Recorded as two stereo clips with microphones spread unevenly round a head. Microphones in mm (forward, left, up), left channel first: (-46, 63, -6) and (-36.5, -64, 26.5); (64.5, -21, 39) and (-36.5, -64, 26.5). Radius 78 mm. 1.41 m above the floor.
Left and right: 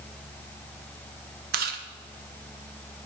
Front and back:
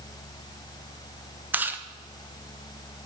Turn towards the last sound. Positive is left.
turn(degrees=-85)